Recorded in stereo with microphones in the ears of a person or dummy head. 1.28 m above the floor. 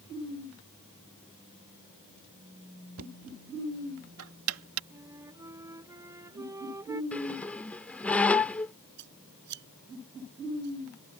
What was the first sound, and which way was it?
Knocking, 85° right.